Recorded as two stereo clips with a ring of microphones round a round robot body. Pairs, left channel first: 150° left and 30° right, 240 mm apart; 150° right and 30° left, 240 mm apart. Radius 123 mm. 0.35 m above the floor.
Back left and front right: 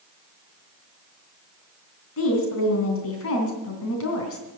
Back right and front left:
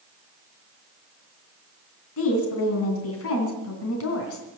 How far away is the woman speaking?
About 3 m.